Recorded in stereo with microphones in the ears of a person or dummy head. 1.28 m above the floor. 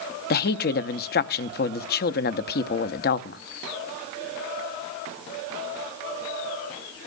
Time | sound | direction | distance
0.3 | a woman speaking | 40° left (ahead or behind) | 0.6 m